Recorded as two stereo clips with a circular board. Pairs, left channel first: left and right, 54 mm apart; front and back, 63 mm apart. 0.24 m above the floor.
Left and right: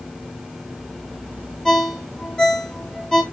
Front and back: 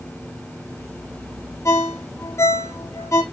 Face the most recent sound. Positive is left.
turn(degrees=10)